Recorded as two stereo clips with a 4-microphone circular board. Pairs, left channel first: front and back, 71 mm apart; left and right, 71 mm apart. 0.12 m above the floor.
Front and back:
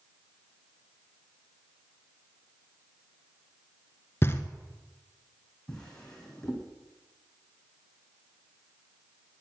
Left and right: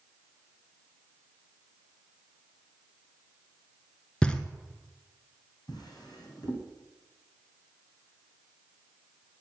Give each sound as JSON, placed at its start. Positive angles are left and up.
{"t": 4.2, "sound": "knocking", "azimuth_deg": 25, "distance_m": 1.2}
{"t": 5.7, "sound": "a drawer", "azimuth_deg": 80, "distance_m": 4.0}